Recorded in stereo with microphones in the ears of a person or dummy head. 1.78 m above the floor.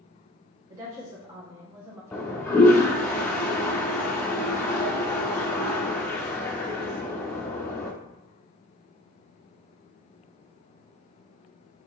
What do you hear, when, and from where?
0.7 s a woman speaking: 20° right (ahead or behind), 1.2 m
2.1 s a toilet flushing: 10° left (ahead or behind), 0.6 m